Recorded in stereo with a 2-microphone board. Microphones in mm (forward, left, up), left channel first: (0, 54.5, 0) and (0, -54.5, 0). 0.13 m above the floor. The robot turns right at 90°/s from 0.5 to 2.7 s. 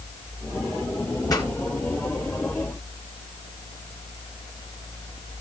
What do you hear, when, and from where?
1.3 s a pop: 35° left (ahead or behind), 1.8 m; by 1.5 s 45° left (ahead or behind), 1.8 m